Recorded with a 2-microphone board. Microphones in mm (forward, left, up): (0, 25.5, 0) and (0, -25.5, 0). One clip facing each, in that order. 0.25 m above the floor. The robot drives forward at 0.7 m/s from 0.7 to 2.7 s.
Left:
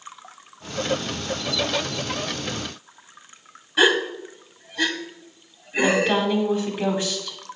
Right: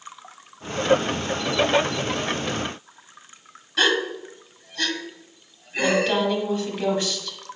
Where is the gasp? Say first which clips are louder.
Left 3 dB; 15° left (ahead or behind), 0.7 m.